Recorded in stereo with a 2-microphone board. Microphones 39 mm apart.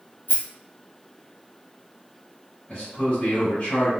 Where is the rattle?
55° left (ahead or behind), 1.2 m.